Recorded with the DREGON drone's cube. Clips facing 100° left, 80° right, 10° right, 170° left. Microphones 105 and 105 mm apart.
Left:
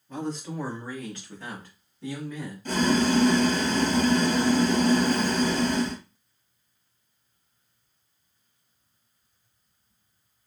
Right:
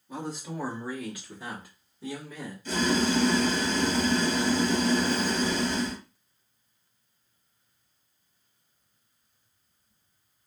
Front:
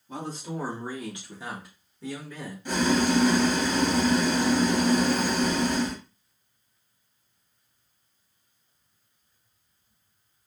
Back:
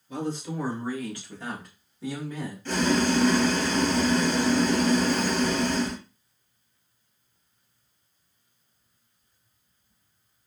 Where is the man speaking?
Straight ahead, 1.4 m; by 2.5 s 145° right, 1.2 m.